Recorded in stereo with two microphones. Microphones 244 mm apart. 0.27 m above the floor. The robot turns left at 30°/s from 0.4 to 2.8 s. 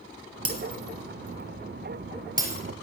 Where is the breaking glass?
70° right (ahead or behind), 3 m; by 2.6 s 5° right (ahead or behind), 3 m.